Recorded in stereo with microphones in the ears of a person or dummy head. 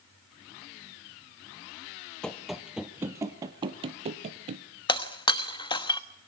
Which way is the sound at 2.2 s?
5° left (ahead or behind).